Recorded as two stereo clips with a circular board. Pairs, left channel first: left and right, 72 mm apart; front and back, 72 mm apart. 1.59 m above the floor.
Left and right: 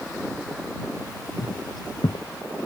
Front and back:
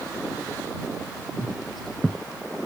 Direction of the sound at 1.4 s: 90° left.